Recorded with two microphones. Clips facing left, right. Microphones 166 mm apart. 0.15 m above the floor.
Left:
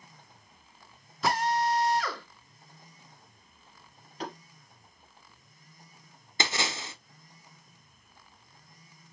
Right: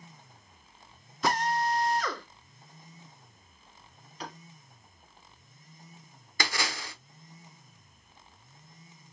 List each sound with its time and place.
1.2 s a drill: centre (ahead or behind), 1.9 m
4.2 s tapping: 45° left (ahead or behind), 4 m
6.4 s a splash: 25° left (ahead or behind), 0.7 m